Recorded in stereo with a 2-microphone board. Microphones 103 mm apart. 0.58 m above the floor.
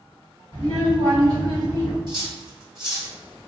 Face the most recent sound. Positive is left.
turn(degrees=-45)  # may be behind; listen again after turning